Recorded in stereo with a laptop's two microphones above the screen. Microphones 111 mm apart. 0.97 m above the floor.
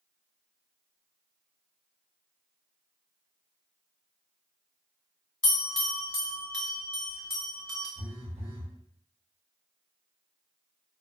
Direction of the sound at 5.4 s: 5° left (ahead or behind).